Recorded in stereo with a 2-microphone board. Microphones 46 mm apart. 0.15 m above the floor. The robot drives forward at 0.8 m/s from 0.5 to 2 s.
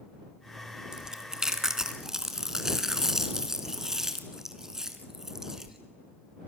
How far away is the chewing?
About 1.5 m.